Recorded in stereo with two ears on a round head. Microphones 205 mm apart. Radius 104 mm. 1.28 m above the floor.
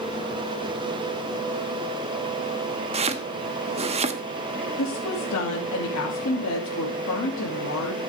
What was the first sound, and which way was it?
Chopping, 30° right (ahead or behind).